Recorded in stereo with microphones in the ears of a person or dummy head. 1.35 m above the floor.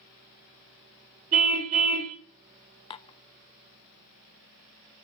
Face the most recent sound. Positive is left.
turn(degrees=30)  # may be behind; listen again after turning